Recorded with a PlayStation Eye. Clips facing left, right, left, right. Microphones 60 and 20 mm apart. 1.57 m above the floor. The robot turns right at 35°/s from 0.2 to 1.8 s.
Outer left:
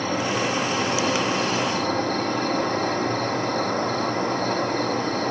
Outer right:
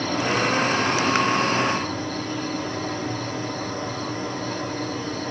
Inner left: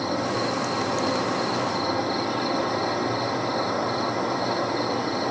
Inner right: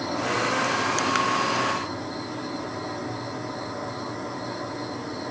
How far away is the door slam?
I don't hear a door slam.